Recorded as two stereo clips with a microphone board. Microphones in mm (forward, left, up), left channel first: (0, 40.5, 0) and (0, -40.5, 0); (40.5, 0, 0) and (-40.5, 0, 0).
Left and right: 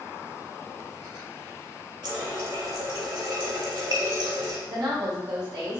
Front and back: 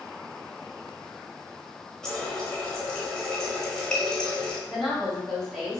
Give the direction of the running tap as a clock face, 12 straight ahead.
3 o'clock.